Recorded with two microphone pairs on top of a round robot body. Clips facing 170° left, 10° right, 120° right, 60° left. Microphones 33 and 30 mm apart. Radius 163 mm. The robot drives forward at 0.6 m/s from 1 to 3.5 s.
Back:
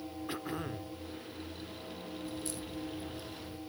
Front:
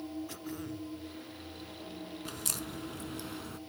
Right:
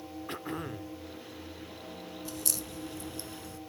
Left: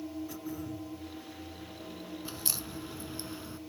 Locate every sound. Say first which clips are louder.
0.3 s throat clearing: back 3 dB, right 2 dB; 135° right
2.2 s a crack: front 1 dB, right 2 dB; 5° right